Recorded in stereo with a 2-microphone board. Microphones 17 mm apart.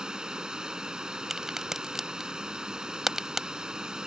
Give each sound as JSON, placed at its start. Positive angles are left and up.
{"t": 0.0, "sound": "running water", "side_deg": -50}
{"t": 1.3, "sound": "a crack", "side_deg": -20}